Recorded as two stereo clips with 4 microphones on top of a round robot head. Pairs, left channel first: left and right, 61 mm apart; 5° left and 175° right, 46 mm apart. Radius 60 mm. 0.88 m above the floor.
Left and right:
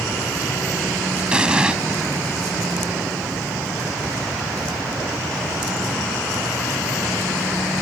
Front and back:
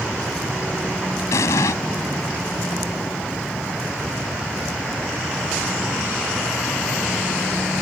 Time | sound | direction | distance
1.3 | an explosion | 15° right | ?